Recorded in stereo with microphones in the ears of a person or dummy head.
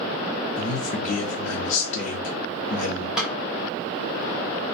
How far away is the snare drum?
About 1.2 m.